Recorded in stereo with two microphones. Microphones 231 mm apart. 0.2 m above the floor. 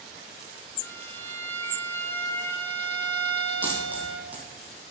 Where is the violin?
10° left (ahead or behind), 1.6 m.